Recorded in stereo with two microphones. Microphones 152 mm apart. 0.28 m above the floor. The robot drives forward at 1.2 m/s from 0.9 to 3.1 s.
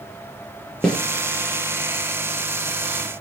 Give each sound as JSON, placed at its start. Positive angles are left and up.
{"t": 0.8, "sound": "a snare drum", "side_deg": 5, "distance_m": 5.5}